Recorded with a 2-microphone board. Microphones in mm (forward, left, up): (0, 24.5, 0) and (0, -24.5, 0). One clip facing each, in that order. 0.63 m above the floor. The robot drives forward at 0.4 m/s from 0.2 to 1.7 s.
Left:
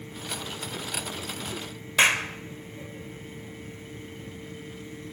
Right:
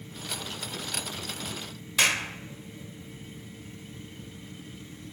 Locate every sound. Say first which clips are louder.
2.0 s a clap: left 4 dB; 30° left (ahead or behind), 1.9 m